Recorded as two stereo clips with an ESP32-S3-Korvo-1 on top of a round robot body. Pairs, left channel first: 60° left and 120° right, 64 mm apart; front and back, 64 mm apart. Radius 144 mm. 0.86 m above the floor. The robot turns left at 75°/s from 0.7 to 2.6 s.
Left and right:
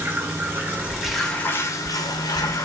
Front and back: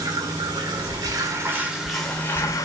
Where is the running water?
Straight behind, 2.5 m; by 2.6 s 40° left, 2.5 m.